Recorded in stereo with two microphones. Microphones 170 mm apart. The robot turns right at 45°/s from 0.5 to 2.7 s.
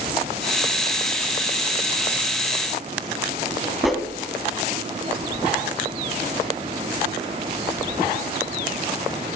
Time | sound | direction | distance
3.8 | a whoosh | centre (ahead or behind) | 1.4 m